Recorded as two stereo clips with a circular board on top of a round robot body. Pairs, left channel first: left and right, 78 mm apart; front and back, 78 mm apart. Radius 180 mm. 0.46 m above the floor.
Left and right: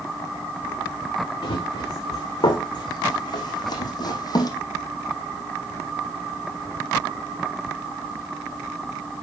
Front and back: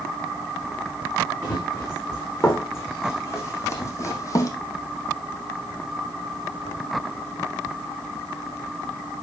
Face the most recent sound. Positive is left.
turn(degrees=45)